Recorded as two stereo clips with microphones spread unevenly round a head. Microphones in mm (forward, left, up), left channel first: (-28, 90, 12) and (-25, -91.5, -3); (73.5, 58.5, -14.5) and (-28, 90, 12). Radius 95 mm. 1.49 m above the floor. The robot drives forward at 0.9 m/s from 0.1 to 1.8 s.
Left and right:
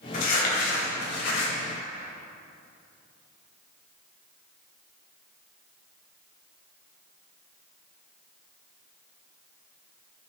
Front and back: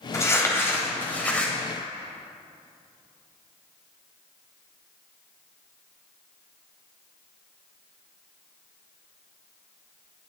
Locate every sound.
0.1 s crumpling: 50° left, 3.5 m; by 1.5 s 70° left, 3 m